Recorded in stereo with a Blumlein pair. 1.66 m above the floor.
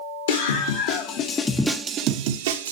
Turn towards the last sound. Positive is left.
turn(degrees=-65)